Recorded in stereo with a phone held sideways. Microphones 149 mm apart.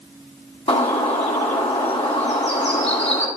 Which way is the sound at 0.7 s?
40° left (ahead or behind).